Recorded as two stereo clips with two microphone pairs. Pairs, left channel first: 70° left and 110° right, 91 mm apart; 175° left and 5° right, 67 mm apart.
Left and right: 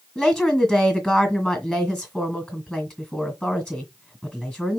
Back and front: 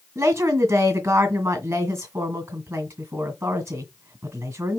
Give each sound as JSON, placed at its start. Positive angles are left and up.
{"t": 0.1, "sound": "a woman speaking", "azimuth_deg": -20, "distance_m": 1.8}